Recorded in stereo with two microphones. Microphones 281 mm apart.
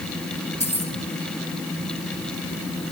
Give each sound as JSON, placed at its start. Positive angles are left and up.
{"t": 0.6, "sound": "keys jangling", "side_deg": 25, "distance_m": 2.5}